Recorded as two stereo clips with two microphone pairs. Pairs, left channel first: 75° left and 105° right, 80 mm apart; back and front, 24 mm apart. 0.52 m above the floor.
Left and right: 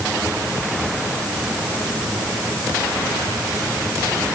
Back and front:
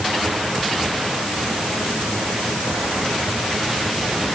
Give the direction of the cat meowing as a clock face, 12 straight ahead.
I don't hear a cat meowing.